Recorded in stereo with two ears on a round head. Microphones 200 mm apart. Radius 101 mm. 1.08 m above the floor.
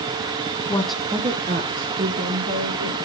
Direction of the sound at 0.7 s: 20° left (ahead or behind).